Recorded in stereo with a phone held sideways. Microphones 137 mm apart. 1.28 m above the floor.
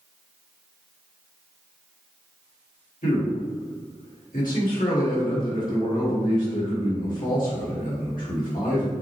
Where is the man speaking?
85° left, 1.7 m.